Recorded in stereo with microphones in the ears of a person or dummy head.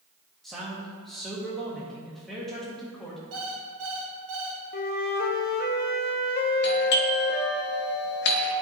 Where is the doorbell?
55° left (ahead or behind), 1.3 m.